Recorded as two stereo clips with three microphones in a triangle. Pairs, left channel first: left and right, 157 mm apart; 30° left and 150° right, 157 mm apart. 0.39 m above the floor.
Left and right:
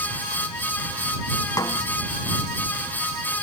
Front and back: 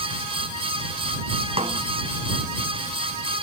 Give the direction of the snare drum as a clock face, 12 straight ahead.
7 o'clock.